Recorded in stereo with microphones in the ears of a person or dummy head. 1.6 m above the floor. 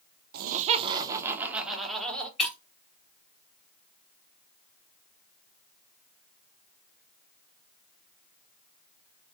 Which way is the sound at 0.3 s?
55° right (ahead or behind).